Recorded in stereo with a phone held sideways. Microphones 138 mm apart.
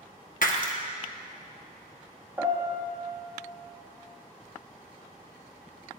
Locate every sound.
0.4 s breaking glass: 65° left (ahead or behind), 0.9 m
2.4 s a piano: 15° right (ahead or behind), 1.4 m